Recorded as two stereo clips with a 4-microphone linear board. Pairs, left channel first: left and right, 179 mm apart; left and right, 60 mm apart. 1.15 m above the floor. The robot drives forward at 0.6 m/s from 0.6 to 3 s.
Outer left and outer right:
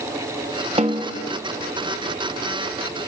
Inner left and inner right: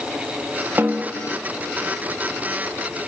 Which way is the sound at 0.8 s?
35° right (ahead or behind).